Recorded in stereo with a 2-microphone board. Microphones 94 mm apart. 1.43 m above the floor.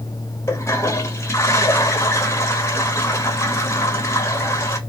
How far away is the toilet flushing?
About 0.8 m.